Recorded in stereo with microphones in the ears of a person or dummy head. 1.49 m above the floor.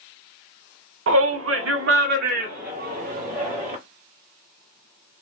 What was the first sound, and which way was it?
A shout, 80° right.